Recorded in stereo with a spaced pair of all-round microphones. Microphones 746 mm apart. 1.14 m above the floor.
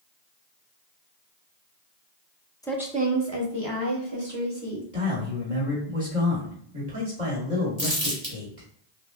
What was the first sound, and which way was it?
A woman speaking, 5° left (ahead or behind).